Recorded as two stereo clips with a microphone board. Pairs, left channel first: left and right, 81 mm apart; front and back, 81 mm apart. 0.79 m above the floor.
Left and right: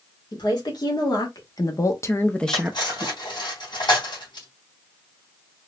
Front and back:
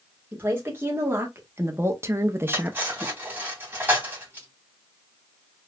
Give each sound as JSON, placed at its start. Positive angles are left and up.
{"t": 0.3, "sound": "a woman speaking", "azimuth_deg": 115, "distance_m": 2.0}
{"t": 2.5, "sound": "cutlery clinking", "azimuth_deg": 115, "distance_m": 3.0}